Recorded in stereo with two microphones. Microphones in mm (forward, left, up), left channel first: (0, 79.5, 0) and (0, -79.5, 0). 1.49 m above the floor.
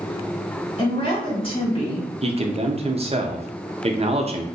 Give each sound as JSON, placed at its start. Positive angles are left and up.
{"t": 0.8, "sound": "a woman speaking", "side_deg": 35, "distance_m": 2.0}
{"t": 2.2, "sound": "a man speaking", "side_deg": -40, "distance_m": 0.6}